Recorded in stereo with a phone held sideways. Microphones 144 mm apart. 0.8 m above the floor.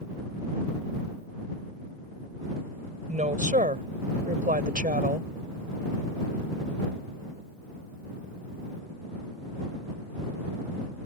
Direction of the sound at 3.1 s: 60° right (ahead or behind).